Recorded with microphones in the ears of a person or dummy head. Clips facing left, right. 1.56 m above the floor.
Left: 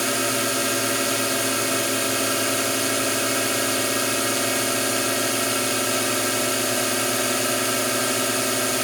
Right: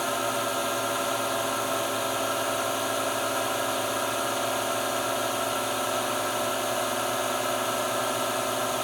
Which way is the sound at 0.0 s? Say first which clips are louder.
Left 4 dB; 35° left (ahead or behind).